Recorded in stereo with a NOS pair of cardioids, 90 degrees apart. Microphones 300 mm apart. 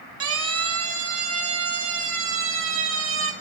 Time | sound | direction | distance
0.2 | a siren | 55° right | 6 m